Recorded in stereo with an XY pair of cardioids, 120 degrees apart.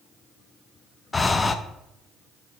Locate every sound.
1.1 s breathing: 20° left, 0.6 m